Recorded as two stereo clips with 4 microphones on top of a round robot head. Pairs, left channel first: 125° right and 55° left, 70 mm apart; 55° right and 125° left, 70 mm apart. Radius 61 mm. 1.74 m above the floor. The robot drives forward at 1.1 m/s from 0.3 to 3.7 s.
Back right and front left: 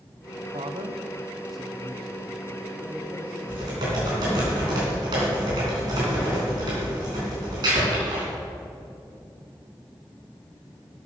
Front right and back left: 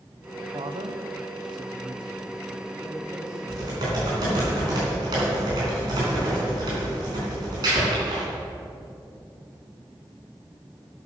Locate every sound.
0.5 s a man speaking: 75° left, 0.7 m; by 4.5 s 170° left, 3.5 m
3.5 s typing on a keyboard: 85° left, 3.5 m; by 8.2 s 90° left, 3.5 m